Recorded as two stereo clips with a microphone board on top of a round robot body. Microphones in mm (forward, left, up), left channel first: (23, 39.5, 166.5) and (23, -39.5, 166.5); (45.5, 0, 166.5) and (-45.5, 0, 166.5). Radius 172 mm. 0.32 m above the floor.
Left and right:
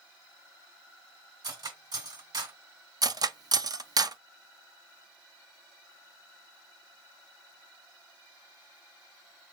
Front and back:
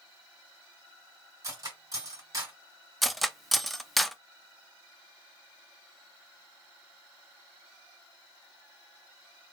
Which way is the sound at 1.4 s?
125° right.